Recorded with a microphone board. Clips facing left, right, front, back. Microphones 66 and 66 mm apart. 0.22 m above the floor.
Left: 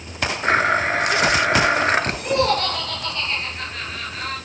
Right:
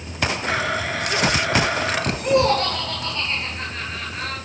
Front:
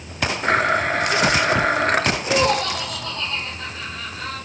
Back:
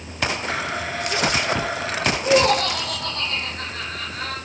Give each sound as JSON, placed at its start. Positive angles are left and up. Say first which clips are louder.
{"t": 0.4, "sound": "a blender", "louder": "left 9 dB, front 8 dB", "azimuth_deg": 40, "distance_m": 1.2}
{"t": 2.2, "sound": "laughter", "louder": "right 6 dB, back 2 dB", "azimuth_deg": 180, "distance_m": 4.0}